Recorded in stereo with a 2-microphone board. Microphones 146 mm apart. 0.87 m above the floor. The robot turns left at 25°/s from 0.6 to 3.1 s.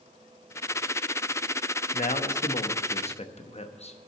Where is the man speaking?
65° left (ahead or behind), 0.9 m; by 4.0 s 45° left (ahead or behind), 0.9 m.